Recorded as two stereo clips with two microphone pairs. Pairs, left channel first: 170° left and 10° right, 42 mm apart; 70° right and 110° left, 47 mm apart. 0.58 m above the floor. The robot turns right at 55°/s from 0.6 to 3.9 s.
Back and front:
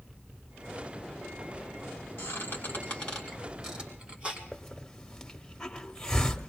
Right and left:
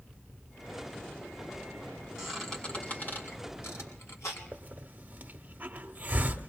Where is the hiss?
110° left, 1.1 m.